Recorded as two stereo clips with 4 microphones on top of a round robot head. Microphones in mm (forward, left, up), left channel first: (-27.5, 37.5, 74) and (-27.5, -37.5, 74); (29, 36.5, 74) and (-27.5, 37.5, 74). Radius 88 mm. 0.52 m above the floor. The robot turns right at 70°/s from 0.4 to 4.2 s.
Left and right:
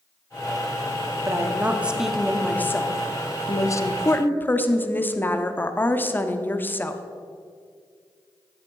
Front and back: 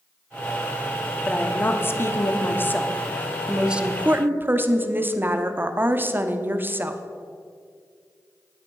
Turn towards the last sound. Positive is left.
turn(degrees=145)